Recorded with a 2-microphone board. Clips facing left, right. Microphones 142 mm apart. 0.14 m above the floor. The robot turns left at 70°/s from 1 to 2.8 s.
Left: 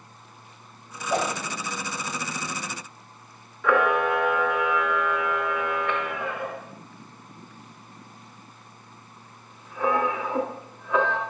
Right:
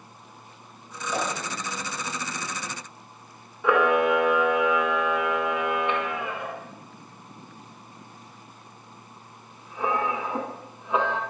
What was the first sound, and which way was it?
A whoosh, 60° left (ahead or behind).